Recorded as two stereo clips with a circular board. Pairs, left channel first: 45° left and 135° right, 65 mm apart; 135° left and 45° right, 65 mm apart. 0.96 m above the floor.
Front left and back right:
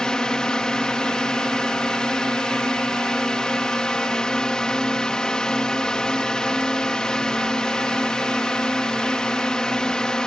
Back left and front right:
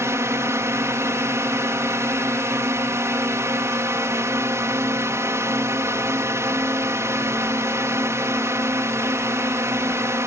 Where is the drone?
30° right.